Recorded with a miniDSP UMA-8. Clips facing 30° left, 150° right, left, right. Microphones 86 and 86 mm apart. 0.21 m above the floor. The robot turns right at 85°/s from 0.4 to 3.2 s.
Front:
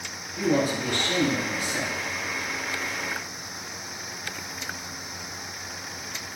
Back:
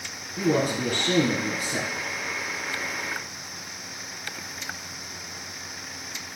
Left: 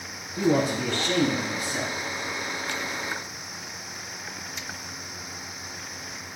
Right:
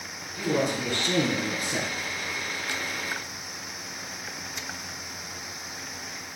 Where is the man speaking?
140° left, 2 m; by 1.9 s 90° right, 2 m.